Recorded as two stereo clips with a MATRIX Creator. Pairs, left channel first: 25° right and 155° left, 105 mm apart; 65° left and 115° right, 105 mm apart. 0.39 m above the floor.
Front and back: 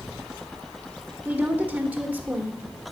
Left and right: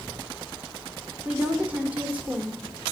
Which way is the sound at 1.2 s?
160° right.